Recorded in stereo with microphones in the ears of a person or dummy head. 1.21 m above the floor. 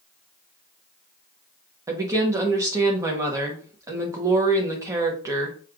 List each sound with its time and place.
1.9 s a woman speaking: 20° right (ahead or behind), 1.2 m